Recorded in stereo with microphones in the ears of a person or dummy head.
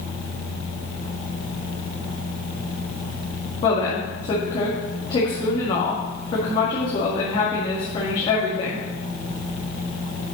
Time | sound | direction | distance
3.6 | a woman speaking | 25° left (ahead or behind) | 2 m